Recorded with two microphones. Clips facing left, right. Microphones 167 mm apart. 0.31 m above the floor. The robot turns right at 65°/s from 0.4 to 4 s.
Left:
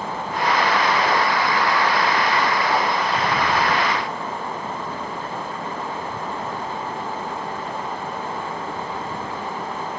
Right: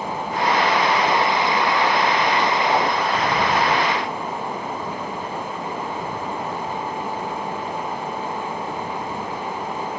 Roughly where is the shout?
I don't hear a shout.